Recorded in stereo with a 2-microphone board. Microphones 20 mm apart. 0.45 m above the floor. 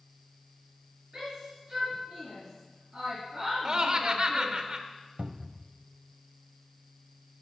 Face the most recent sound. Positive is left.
turn(degrees=-65)  # may be behind; listen again after turning